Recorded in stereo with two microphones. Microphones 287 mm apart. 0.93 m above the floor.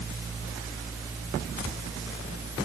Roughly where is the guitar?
No guitar in this recording.